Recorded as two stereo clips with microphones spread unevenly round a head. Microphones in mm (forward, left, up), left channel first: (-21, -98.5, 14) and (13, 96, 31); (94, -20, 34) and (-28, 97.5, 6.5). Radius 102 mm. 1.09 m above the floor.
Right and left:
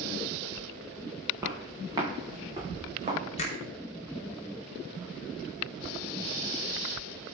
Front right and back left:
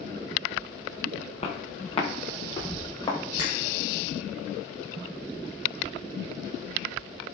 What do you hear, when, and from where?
1.4 s footsteps: 5° left, 5 m; by 3.2 s 20° left, 6.5 m
3.4 s a finger snap: 155° right, 3 m